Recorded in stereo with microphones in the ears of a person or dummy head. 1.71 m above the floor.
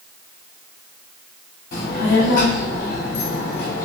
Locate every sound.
1.7 s a child speaking: 45° left (ahead or behind), 1.1 m